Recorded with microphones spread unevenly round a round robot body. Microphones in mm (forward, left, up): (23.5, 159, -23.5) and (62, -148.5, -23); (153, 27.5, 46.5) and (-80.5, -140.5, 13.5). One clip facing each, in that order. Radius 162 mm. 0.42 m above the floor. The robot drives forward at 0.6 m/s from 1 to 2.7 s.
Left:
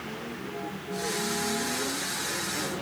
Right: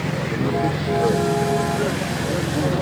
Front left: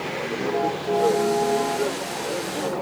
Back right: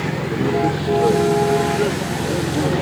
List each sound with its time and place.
0.0 s a vehicle: 100° right; by 2.8 s 110° right